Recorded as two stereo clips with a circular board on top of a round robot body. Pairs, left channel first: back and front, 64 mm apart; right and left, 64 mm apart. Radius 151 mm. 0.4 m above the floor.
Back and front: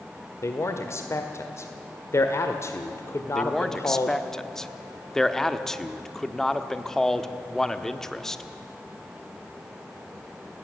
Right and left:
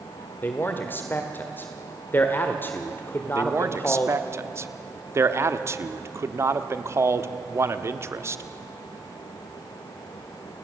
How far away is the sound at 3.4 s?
About 1.5 m.